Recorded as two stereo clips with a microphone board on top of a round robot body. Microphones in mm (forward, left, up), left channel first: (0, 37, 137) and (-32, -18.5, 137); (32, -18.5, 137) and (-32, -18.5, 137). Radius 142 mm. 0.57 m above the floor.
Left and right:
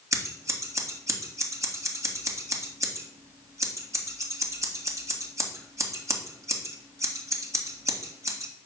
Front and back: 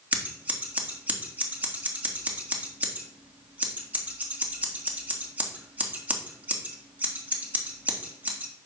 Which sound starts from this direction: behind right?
Scissors, at 0.1 s.